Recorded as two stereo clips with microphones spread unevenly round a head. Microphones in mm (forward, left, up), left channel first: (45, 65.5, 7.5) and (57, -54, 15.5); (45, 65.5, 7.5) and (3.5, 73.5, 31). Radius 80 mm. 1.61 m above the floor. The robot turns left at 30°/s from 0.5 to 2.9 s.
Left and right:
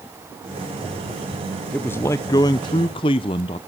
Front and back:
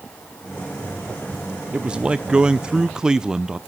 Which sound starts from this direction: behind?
A man speaking, at 1.7 s.